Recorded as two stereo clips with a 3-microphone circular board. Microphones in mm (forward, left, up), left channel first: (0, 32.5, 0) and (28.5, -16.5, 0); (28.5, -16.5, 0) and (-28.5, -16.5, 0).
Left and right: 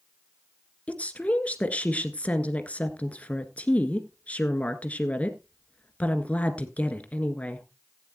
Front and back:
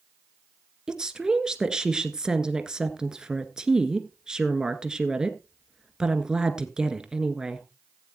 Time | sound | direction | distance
0.9 | a woman speaking | 120° left | 1.5 m